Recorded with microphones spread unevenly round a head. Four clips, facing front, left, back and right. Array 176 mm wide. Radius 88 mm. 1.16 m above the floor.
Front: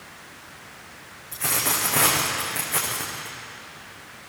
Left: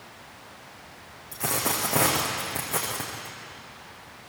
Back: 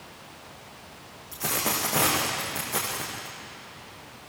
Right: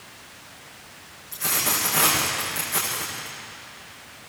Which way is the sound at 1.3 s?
110° left.